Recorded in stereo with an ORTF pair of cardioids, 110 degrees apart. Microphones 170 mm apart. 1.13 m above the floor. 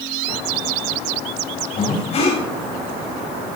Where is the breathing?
40° left, 6.5 m.